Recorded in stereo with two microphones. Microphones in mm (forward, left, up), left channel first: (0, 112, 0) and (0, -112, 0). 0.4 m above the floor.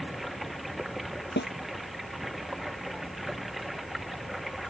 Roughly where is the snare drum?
Left.